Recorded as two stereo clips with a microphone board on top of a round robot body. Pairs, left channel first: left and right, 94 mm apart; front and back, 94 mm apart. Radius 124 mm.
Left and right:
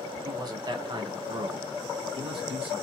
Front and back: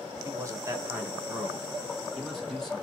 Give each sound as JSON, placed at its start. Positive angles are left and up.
{"t": 0.2, "sound": "a man speaking", "azimuth_deg": -135, "distance_m": 1.5}